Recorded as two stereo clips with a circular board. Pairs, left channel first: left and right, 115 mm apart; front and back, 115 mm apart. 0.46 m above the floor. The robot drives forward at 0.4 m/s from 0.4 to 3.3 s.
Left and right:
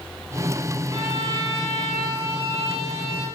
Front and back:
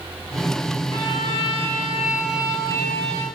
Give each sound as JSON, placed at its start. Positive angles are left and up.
{"t": 0.9, "sound": "a violin", "azimuth_deg": -45, "distance_m": 2.0}